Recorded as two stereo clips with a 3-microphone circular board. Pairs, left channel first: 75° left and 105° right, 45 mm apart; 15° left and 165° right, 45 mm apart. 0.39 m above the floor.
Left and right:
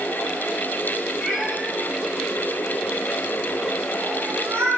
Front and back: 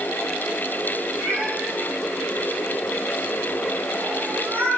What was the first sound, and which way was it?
A cat meowing, 170° left.